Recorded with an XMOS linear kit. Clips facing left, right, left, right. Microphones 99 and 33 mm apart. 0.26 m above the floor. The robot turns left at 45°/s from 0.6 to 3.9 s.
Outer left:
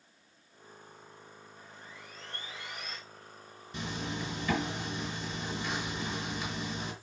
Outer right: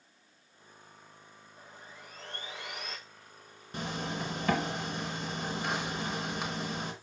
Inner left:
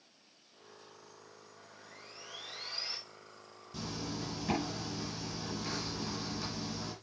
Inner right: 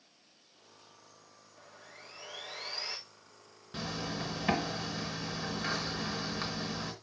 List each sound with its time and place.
1.6 s sawing: 25° right, 5.5 m; by 3.0 s 90° right, 5.5 m
3.7 s a zipper: 50° right (ahead or behind), 4 m; by 6.9 s 60° right (ahead or behind), 4 m